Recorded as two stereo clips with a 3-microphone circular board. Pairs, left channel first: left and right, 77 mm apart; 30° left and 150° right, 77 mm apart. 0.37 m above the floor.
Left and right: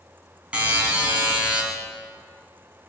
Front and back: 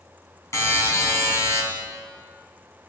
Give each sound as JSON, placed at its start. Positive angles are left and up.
{"t": 0.5, "sound": "a buzzer", "azimuth_deg": -20, "distance_m": 3.5}